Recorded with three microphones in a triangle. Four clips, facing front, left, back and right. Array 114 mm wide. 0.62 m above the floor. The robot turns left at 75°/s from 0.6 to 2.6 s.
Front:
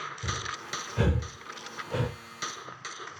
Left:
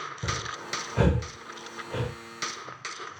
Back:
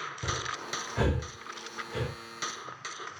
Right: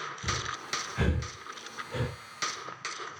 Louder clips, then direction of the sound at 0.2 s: Left 2 dB, back 4 dB; 125° left.